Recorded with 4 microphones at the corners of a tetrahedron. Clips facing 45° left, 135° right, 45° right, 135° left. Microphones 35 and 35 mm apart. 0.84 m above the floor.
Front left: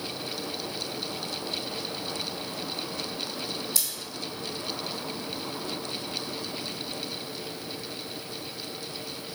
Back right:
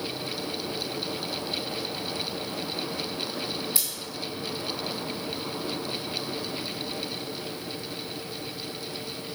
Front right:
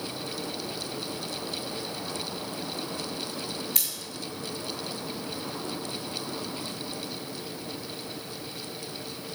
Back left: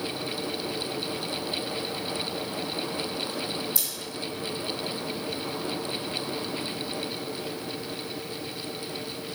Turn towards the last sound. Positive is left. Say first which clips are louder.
# back right 1 dB, even
turn(degrees=-65)